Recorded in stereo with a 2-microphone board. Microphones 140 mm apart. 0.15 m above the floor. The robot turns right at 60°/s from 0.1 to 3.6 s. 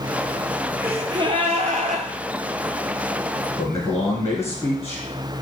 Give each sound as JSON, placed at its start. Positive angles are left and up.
{"t": 0.8, "sound": "a gasp", "azimuth_deg": -165, "distance_m": 0.7}
{"t": 3.6, "sound": "a man speaking", "side_deg": 20, "distance_m": 1.1}